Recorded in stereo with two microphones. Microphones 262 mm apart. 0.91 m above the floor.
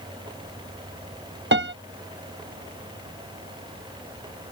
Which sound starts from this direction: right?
A piano, at 1.5 s.